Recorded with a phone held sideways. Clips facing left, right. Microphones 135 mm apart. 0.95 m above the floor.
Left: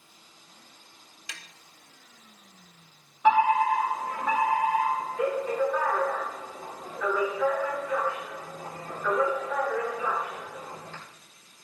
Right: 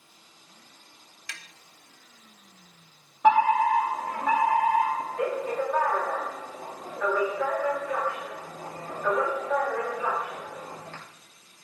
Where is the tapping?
20° left (ahead or behind), 1.1 m.